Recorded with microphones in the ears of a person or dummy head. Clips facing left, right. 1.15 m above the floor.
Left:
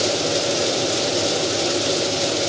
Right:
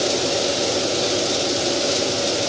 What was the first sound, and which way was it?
Only background noise.